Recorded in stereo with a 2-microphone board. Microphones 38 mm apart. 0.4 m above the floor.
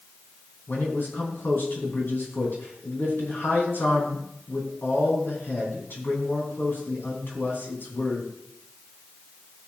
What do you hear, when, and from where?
0.7 s a man speaking: 70° left (ahead or behind), 3.5 m